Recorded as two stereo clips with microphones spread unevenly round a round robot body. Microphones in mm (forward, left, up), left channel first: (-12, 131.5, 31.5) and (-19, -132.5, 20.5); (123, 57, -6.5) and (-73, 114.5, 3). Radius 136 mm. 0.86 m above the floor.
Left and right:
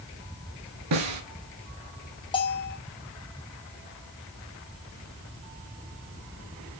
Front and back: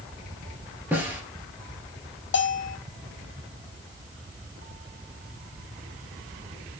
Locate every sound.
0.9 s a snare drum: 115° right, 2 m
2.3 s a bell: 15° left, 1.0 m